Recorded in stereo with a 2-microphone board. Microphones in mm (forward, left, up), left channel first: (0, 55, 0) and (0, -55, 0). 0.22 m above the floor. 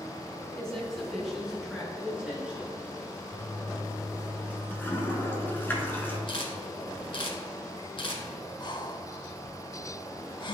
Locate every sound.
0.6 s a woman speaking: 5° left (ahead or behind), 2 m; by 2.7 s 15° right (ahead or behind), 3 m
3.3 s a toilet flushing: 20° left (ahead or behind), 1.1 m
6.3 s a camera shutter: 55° left (ahead or behind), 1.3 m
8.6 s breathing: 40° left (ahead or behind), 0.6 m